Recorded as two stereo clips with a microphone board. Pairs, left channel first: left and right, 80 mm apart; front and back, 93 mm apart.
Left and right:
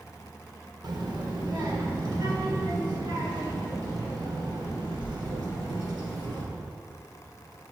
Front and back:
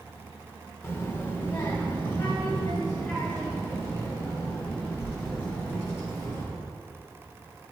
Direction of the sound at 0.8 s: 65° right.